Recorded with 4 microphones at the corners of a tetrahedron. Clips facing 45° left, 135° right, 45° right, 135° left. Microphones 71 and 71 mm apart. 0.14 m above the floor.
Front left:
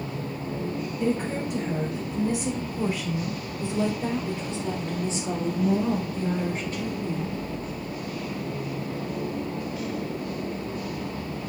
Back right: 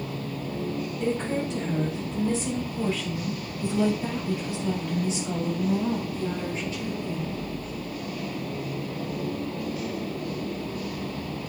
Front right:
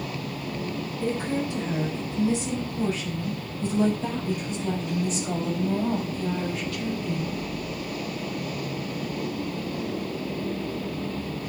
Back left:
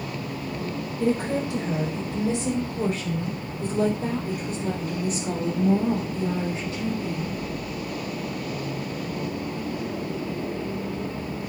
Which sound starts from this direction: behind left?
A woman speaking, at 1.0 s.